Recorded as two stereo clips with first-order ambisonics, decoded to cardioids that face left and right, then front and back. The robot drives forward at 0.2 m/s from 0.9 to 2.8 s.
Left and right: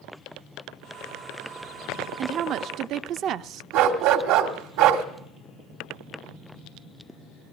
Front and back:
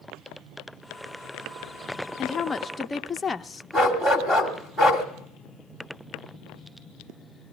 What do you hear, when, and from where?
2.2 s a woman speaking: 60° right, 0.6 m; by 3.6 s 80° right, 0.6 m
3.7 s a dog barking: 105° right, 2 m